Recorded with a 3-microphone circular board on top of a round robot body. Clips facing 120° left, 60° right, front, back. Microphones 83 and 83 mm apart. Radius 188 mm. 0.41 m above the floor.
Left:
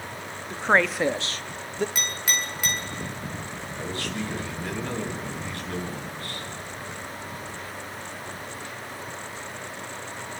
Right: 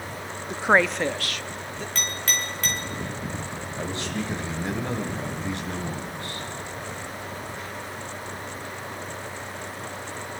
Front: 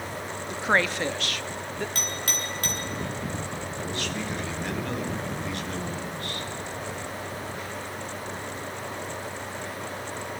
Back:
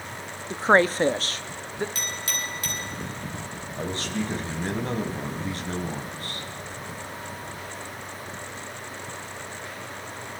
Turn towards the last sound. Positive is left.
turn(degrees=-125)